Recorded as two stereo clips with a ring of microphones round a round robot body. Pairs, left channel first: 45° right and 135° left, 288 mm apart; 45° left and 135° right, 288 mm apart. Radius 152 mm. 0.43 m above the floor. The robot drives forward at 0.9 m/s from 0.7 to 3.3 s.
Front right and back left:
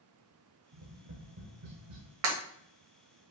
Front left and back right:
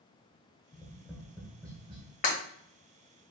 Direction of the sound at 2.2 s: 110° left.